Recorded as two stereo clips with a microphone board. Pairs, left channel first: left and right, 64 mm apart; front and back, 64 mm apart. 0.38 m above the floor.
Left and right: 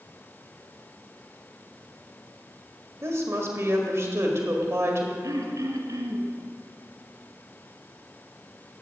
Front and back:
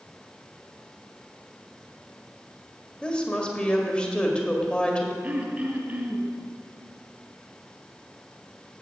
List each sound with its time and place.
3.0 s a woman speaking: 70° right, 1.6 m
5.2 s throat clearing: 115° right, 1.8 m